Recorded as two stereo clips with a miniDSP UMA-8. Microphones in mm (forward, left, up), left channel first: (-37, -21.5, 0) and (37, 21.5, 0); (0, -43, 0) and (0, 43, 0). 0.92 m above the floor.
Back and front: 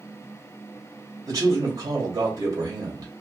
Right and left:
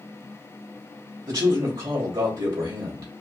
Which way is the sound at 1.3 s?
70° left.